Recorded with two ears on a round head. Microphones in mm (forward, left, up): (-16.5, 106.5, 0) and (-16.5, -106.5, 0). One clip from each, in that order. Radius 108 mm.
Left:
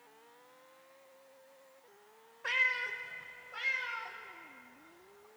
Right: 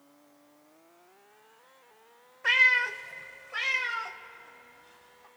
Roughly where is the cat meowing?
Centre.